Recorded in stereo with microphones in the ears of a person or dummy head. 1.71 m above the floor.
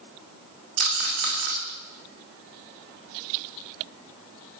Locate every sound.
0.8 s a rattle: 55° right (ahead or behind), 3 m